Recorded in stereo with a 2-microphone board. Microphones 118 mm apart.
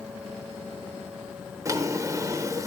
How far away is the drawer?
About 0.7 m.